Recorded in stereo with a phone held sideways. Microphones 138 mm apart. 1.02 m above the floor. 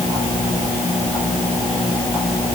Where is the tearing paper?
No tearing paper in this recording.